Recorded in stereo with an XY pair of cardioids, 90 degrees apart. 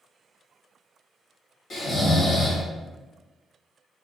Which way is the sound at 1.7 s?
60° left.